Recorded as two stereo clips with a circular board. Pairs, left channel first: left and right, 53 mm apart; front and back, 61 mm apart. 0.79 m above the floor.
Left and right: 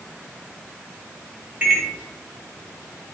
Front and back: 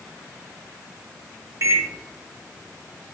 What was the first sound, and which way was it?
A microwave, 150° right.